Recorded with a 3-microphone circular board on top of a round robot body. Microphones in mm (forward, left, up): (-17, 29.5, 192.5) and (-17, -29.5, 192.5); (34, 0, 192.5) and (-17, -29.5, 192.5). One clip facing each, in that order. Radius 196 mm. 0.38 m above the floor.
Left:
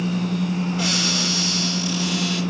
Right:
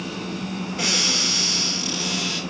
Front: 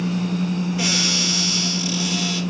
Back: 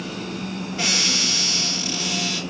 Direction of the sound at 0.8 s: 100° right.